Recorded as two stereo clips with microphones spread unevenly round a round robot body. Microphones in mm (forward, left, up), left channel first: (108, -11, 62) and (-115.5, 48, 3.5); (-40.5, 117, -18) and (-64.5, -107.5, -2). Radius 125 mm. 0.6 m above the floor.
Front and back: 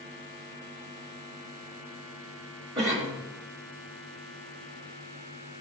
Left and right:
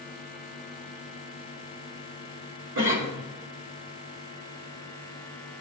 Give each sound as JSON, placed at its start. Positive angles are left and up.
{"t": 2.8, "sound": "a cough", "azimuth_deg": -125, "distance_m": 2.5}